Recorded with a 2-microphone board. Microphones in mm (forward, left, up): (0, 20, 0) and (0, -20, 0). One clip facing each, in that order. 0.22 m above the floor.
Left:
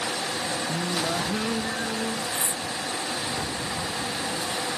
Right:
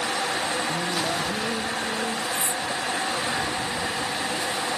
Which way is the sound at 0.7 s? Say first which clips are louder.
Right 1 dB; 5° left (ahead or behind).